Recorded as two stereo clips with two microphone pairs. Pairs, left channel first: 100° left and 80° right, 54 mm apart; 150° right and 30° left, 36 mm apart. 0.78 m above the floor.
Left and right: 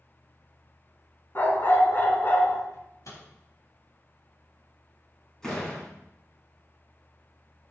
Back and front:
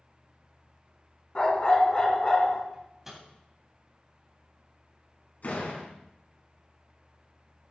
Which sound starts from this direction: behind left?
A dog barking, at 1.4 s.